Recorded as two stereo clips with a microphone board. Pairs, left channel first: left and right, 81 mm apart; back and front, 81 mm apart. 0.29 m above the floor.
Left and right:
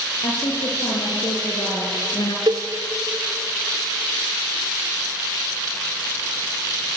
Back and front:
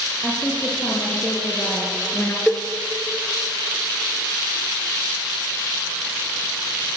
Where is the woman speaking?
105° left, 7.5 m; by 2.4 s 110° left, 4.5 m.